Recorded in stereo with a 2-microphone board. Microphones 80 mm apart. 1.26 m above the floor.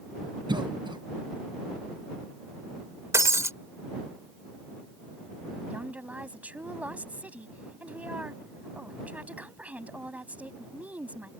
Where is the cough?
70° right (ahead or behind).